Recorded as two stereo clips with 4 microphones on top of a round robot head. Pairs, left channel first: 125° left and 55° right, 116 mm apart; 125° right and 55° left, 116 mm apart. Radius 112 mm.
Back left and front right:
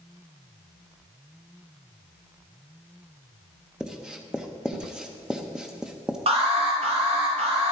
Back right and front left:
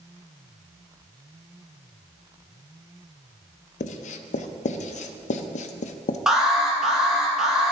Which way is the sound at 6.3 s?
30° right.